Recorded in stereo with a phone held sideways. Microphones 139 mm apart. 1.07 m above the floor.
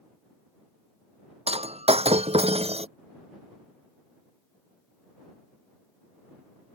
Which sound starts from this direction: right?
Breaking glass, at 1.5 s.